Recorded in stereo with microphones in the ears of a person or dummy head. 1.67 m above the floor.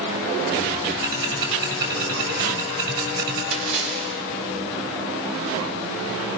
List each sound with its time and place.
1.0 s ticking: 50° right (ahead or behind), 8.5 m
3.5 s a splash: 70° right (ahead or behind), 7 m